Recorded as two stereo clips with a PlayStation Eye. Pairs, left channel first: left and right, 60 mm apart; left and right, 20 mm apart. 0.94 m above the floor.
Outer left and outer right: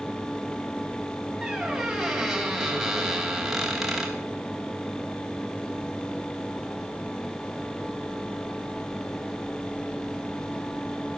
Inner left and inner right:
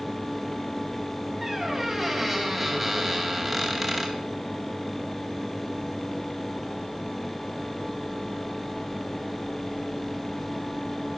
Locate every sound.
1.4 s a squeak: 5° right (ahead or behind), 3 m